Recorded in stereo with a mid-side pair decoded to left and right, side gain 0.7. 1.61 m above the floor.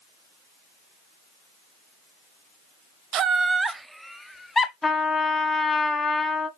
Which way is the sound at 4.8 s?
15° left.